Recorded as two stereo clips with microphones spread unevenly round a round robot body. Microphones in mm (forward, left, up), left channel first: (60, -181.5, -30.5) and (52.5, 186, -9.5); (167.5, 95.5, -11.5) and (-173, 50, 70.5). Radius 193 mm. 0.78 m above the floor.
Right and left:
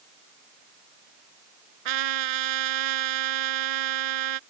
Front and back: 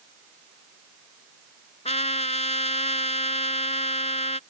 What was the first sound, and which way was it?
A trumpet, 80° left.